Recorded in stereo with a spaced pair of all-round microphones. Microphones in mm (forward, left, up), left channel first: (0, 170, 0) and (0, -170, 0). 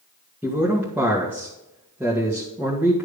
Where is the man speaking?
5° right (ahead or behind), 2.0 m.